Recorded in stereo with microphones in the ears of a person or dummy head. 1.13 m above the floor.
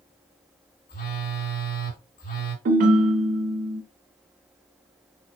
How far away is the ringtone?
About 0.6 m.